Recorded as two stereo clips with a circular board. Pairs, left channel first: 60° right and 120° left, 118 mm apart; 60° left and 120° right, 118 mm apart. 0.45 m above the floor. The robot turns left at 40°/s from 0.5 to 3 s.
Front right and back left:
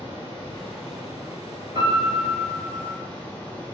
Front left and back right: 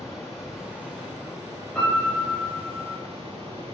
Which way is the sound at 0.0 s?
35° right.